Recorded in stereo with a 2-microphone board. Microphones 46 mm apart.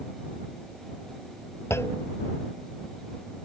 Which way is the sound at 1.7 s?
70° left (ahead or behind).